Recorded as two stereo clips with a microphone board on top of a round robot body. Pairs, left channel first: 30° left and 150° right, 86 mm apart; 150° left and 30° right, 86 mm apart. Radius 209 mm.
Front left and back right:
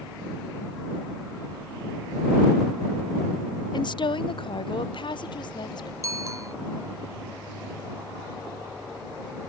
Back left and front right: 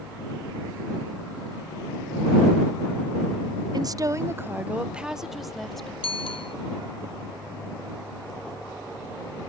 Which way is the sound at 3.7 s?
5° left.